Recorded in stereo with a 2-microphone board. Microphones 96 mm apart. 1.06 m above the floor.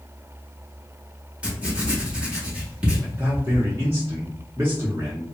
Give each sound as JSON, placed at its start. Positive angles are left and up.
{"t": 1.4, "sound": "writing", "side_deg": -10, "distance_m": 0.9}
{"t": 3.0, "sound": "a man speaking", "side_deg": -25, "distance_m": 0.8}